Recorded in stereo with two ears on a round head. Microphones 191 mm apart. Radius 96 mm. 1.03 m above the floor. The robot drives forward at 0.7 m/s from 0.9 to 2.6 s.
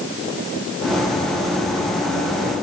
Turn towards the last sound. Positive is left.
No sound to turn to.